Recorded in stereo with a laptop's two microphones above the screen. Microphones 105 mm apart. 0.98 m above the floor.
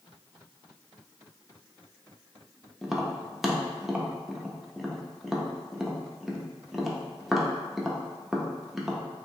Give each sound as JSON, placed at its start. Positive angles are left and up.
{"t": 2.8, "sound": "tapping", "side_deg": -5, "distance_m": 0.5}